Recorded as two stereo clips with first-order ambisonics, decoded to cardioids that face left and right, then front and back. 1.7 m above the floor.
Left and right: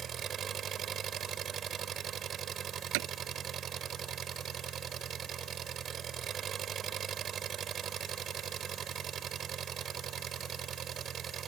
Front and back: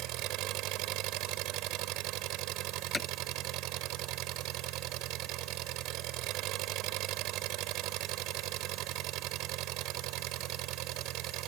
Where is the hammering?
80° right.